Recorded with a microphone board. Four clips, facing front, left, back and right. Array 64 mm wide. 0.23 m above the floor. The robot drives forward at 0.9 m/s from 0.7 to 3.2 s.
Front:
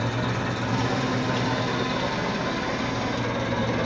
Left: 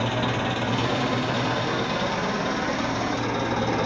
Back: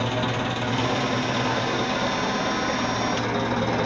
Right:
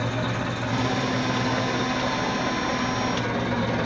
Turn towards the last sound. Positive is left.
turn(degrees=145)